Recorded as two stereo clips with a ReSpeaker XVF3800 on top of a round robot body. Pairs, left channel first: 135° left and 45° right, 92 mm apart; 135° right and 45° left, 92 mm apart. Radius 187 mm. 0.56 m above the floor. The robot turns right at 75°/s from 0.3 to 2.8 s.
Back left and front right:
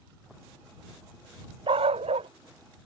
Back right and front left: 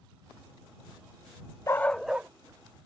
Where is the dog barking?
75° right; by 2.3 s 25° right.